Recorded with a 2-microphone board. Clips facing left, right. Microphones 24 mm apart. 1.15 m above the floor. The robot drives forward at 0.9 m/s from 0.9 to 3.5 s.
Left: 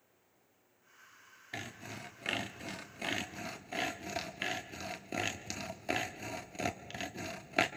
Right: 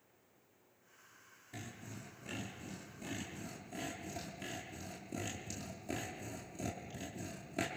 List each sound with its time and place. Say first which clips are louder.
1.5 s sawing: left 6 dB; 50° left (ahead or behind), 1.6 m; by 7.7 s 55° left (ahead or behind), 1.4 m